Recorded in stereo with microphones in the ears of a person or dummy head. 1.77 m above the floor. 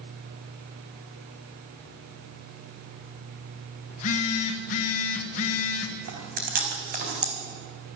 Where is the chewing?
45° right (ahead or behind), 3.5 m.